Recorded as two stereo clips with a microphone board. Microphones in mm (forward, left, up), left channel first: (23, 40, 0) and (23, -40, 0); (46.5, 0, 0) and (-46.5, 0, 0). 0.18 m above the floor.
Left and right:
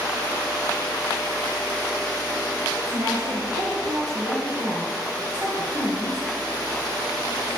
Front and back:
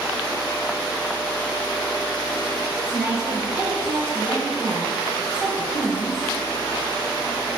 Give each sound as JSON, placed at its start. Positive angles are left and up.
{"t": 2.7, "sound": "a woman speaking", "azimuth_deg": -100, "distance_m": 3.5}